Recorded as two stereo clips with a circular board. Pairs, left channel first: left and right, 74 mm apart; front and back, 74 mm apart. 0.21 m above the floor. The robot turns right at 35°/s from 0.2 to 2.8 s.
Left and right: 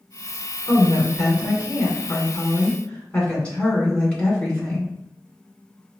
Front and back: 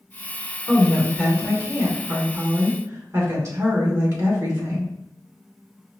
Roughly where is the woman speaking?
Left.